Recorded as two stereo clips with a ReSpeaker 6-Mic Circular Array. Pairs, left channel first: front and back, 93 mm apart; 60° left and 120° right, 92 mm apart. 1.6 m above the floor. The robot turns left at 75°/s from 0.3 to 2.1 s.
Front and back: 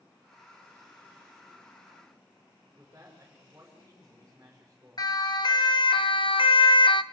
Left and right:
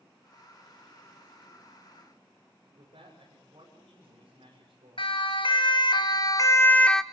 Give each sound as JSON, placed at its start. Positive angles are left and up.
{"t": 2.8, "sound": "a man speaking", "azimuth_deg": -115, "distance_m": 6.5}
{"t": 5.0, "sound": "a siren", "azimuth_deg": 40, "distance_m": 2.5}